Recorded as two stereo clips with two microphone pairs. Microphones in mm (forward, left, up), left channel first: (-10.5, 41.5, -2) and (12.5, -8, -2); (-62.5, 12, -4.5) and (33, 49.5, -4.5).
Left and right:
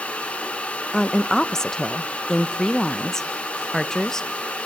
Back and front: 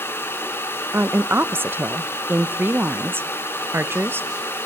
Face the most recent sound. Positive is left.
turn(degrees=50)